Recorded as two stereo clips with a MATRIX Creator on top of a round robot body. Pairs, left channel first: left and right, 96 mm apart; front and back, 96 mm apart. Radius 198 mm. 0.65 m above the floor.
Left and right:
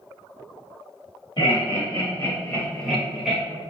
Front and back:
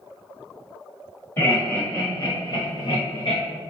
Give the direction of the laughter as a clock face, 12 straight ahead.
10 o'clock.